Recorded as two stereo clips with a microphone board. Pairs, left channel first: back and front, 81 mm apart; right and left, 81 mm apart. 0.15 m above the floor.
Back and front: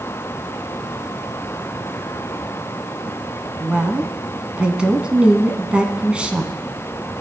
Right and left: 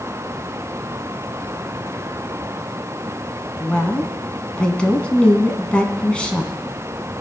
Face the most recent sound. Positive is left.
turn(degrees=-45)